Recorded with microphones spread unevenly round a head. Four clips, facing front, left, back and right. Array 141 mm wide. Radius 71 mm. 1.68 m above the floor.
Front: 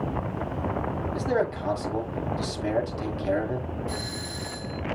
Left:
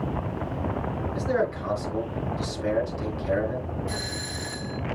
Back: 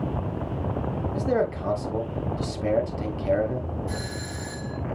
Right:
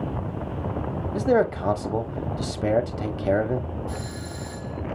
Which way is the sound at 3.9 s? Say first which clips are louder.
Even, back 1 dB; straight behind.